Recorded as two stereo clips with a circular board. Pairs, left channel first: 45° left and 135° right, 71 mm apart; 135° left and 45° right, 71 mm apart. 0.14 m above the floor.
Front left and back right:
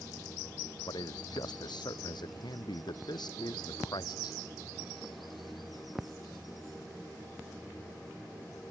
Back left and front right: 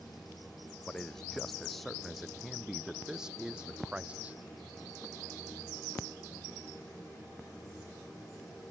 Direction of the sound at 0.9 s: 55° left.